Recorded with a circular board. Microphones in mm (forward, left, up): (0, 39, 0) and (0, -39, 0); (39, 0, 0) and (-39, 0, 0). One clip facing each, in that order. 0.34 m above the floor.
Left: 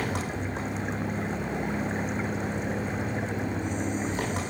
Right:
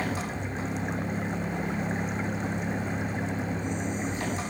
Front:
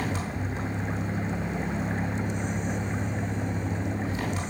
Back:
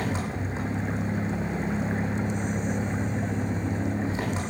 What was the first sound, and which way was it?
An engine running, 120° left.